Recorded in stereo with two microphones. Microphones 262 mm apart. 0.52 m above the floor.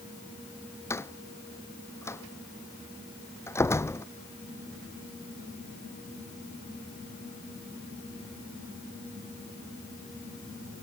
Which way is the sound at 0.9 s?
10° left (ahead or behind).